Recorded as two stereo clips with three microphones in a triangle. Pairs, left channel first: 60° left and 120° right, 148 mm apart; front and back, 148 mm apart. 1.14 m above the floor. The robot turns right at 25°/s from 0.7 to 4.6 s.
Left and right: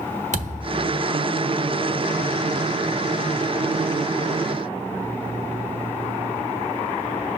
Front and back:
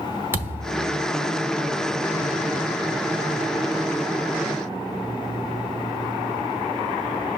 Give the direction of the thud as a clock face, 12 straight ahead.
4 o'clock.